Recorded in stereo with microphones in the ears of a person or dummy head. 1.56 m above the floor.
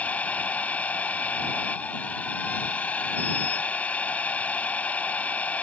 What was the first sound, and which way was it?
A machine running, 5° left (ahead or behind).